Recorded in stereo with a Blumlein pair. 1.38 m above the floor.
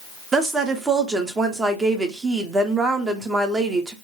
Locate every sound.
0.3 s a woman speaking: 15° right, 0.7 m